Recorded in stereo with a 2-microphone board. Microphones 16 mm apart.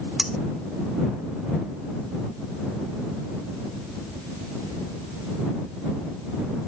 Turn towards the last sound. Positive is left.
turn(degrees=-30)  # may be behind; listen again after turning